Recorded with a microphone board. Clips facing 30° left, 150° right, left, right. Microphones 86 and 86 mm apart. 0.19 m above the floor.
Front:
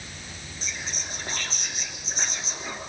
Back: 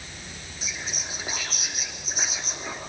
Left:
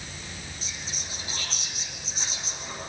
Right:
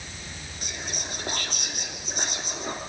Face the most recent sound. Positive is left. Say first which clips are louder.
# back 1 dB, right 4 dB
turn(degrees=-65)